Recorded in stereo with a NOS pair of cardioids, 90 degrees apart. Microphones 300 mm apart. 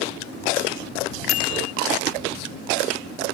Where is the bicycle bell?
65° left.